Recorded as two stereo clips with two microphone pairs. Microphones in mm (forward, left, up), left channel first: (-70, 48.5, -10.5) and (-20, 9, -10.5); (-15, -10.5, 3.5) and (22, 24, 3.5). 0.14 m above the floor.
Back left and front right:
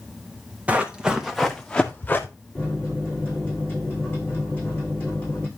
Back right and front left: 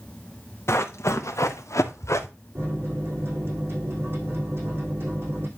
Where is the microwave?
75° left, 7.5 m.